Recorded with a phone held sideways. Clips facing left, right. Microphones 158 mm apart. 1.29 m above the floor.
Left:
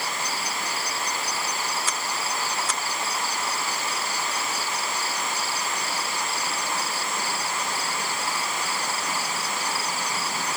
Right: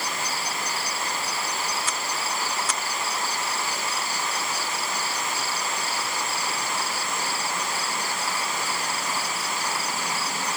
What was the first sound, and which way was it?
Only background noise.